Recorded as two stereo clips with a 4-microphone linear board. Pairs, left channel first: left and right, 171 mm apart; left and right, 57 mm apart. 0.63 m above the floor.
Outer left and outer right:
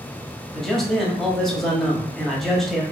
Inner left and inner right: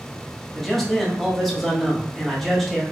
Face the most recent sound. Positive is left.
turn(degrees=0)  # may be behind; listen again after turning